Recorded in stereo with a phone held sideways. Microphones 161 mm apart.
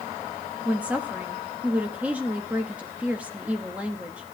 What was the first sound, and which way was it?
A woman speaking, 10° right (ahead or behind).